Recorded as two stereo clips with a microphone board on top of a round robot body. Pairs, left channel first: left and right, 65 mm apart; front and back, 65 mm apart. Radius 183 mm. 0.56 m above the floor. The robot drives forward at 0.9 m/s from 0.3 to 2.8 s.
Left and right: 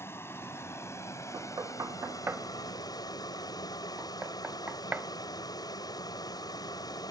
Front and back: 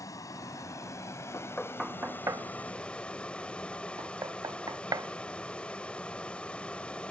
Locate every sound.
0.0 s a vehicle: 40° left; by 7.1 s 75° left
1.3 s knocking: 45° right; by 7.1 s 155° right